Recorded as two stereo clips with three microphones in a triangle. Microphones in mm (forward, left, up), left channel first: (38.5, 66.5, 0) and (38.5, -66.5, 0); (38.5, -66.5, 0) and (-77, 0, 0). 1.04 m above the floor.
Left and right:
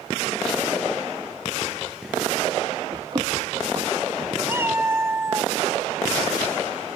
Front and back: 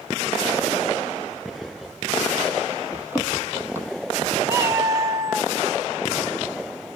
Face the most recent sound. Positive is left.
turn(degrees=-150)